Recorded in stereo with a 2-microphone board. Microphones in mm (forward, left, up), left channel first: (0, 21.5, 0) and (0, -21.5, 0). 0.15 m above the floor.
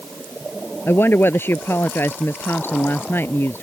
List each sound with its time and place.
0.9 s a woman speaking: 55° left (ahead or behind)